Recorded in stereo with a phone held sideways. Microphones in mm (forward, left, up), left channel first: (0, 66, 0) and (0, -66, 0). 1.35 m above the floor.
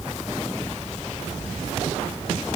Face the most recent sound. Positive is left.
No sound to turn to.